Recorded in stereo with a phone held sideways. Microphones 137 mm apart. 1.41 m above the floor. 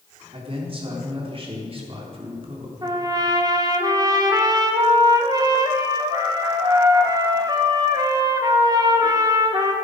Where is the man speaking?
45° right (ahead or behind), 3.5 m.